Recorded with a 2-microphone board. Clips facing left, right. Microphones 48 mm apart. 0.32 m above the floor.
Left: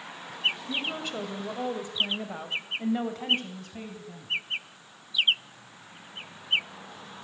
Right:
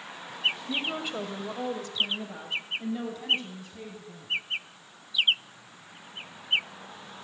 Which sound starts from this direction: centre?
A woman speaking, at 0.7 s.